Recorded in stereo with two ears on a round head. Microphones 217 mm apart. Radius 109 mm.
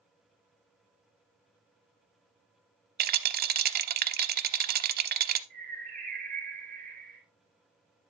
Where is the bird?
35° right (ahead or behind), 2.5 m.